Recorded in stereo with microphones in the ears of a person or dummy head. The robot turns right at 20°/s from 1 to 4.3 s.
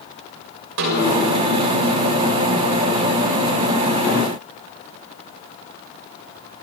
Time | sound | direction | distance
0.8 | a snare drum | 70° right (ahead or behind) | 6.5 m